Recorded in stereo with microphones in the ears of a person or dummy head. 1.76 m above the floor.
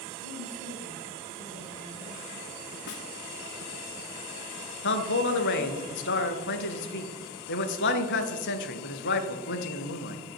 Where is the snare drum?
55° left (ahead or behind), 0.6 m.